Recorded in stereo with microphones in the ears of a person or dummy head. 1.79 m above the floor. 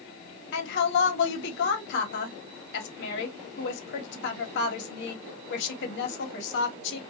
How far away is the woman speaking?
About 1.1 m.